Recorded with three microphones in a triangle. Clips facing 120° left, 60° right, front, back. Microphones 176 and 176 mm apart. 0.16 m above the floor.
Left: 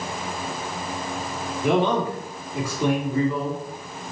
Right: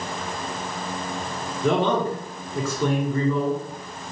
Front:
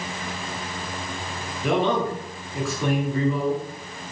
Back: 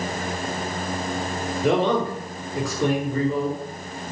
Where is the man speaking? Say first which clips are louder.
Even, back 1 dB; 170° right, 2 m.